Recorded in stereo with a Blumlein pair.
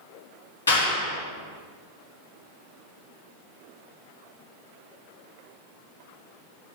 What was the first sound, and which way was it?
A clap, 70° left.